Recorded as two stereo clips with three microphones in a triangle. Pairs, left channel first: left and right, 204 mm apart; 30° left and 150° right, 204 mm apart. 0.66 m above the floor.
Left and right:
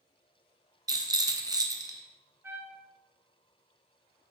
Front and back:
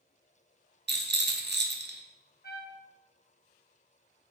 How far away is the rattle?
About 0.5 m.